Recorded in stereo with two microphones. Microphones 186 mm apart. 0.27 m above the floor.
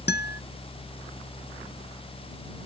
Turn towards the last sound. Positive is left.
turn(degrees=65)  # may be behind; listen again after turning